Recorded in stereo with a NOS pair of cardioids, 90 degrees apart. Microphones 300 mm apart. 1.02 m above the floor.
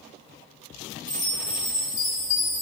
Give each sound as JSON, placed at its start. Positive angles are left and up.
{"t": 1.1, "sound": "a chime", "azimuth_deg": 65, "distance_m": 3.5}